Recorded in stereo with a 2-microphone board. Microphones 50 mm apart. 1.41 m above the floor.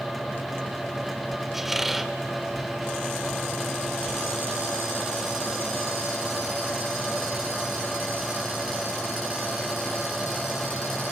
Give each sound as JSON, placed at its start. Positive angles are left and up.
{"t": 1.5, "sound": "a squeak", "side_deg": -5, "distance_m": 1.4}